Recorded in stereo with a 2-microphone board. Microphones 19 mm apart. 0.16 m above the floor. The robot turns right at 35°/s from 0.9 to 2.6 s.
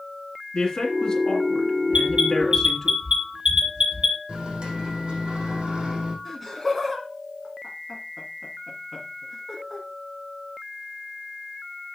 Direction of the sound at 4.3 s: 75° right (ahead or behind).